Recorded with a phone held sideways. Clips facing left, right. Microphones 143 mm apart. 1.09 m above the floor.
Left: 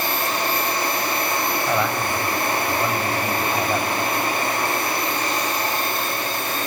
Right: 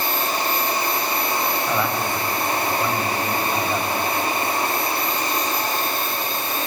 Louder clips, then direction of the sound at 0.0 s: Even; 60° left (ahead or behind).